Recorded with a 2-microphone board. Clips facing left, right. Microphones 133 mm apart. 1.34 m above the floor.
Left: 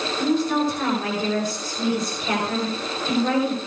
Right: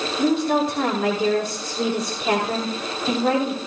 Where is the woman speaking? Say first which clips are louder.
Right 2 dB; 85° right, 5.5 m.